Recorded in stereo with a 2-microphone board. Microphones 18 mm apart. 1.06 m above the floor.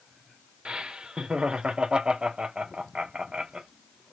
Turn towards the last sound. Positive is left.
turn(degrees=-65)  # may be behind; listen again after turning